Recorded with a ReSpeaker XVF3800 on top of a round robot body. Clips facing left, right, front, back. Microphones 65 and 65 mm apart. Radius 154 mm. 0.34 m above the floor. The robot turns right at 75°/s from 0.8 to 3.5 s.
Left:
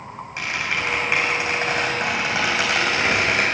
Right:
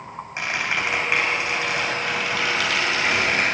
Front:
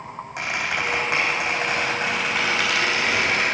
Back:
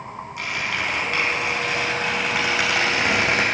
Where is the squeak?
25° right, 3.5 m; by 3.5 s 175° left, 3.5 m.